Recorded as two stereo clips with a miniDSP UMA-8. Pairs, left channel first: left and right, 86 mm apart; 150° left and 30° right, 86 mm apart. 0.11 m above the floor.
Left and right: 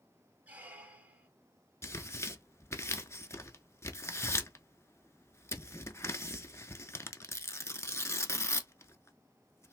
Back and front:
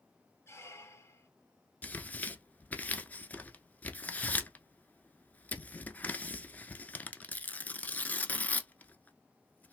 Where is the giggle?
No giggle in this recording.